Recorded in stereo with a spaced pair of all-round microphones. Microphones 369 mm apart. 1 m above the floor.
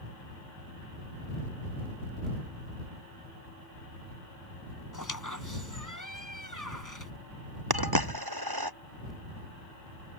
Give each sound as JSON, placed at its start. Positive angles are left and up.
{"t": 4.9, "sound": "a squeak", "side_deg": 55}
{"t": 7.7, "sound": "a dropped coin", "side_deg": -75}